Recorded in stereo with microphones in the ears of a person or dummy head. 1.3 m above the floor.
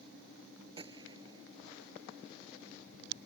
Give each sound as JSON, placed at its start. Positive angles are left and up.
{"t": 0.8, "sound": "a gunshot", "side_deg": -25}